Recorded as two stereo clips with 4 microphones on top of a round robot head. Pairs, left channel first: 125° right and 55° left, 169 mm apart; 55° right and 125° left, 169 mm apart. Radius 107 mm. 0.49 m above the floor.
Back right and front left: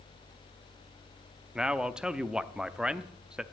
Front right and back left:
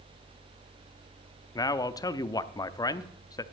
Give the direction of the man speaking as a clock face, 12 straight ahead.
1 o'clock.